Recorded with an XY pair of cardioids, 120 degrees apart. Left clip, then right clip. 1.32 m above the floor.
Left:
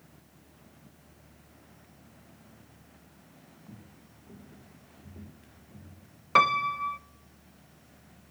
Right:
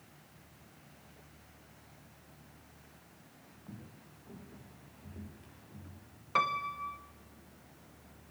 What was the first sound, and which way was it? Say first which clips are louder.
Footsteps: even; 5° right.